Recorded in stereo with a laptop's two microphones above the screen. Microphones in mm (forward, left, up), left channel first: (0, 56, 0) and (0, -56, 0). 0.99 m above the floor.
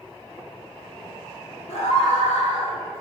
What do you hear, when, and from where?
1.7 s a scream: 80° left, 2 m; by 2.8 s 70° left (ahead or behind), 1.6 m